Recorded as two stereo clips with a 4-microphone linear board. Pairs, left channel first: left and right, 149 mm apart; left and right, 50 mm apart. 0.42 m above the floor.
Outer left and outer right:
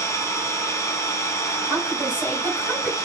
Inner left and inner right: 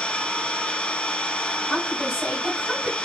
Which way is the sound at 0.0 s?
20° left (ahead or behind).